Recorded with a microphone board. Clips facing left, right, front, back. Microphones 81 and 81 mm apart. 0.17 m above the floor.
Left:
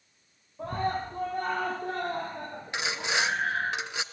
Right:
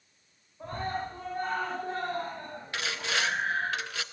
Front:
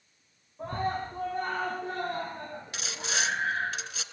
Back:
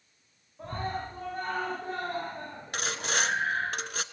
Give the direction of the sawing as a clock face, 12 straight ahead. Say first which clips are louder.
Left 2 dB, back 4 dB; 7 o'clock.